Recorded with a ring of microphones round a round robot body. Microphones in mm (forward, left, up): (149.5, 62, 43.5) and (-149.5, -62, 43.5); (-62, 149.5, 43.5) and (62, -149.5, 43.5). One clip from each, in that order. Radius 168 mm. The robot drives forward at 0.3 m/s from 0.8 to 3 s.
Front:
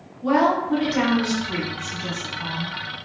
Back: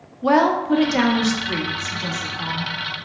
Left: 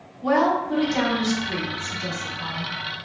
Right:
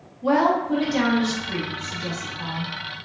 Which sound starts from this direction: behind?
A woman speaking, at 0.2 s.